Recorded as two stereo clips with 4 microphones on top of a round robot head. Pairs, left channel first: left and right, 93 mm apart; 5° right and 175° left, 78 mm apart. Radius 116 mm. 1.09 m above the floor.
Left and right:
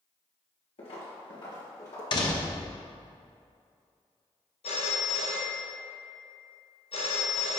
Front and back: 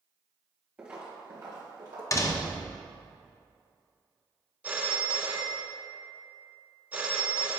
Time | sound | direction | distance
0.8 | footsteps | 100° left | 1.6 m
2.1 | a door slam | 45° left | 0.6 m
4.6 | a phone ringing | 105° left | 0.7 m